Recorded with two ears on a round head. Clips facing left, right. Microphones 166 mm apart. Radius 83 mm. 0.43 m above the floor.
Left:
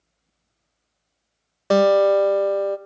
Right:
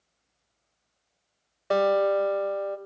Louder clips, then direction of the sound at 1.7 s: Left 7 dB; 60° left (ahead or behind).